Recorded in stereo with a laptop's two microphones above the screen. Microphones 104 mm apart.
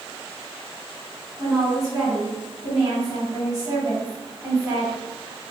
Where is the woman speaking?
10° right (ahead or behind), 1.9 m.